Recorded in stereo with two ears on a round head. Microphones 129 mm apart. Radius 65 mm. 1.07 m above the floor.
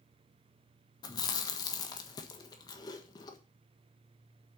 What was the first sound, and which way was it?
Chewing, 25° left (ahead or behind).